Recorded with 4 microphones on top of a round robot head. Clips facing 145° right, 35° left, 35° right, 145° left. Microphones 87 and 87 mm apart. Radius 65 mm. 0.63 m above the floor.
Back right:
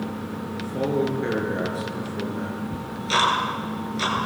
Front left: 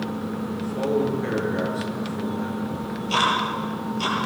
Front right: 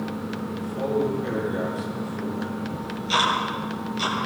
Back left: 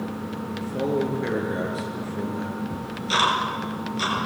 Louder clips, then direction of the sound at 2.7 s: Back right 2 dB, front right 1 dB; 165° right.